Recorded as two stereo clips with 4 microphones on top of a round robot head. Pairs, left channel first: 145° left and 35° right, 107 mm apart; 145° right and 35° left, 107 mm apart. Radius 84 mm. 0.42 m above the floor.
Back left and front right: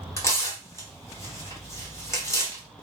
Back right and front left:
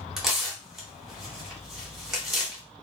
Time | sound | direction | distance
0.2 | tearing paper | 125° left | 1.5 m